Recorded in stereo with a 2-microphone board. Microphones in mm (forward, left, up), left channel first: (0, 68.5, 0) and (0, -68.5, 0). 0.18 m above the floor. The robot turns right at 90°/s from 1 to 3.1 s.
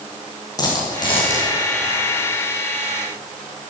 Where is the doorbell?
I don't hear a doorbell.